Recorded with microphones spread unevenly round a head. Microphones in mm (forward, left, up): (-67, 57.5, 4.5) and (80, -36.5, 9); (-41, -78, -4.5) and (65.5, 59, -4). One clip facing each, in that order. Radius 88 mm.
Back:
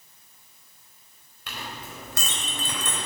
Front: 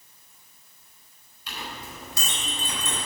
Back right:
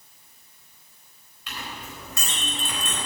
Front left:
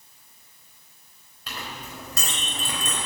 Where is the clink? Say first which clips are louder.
Even, front left 1 dB; 110° left, 4 m.